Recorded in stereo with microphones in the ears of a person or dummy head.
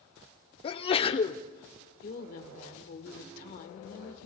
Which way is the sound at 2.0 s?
50° left (ahead or behind).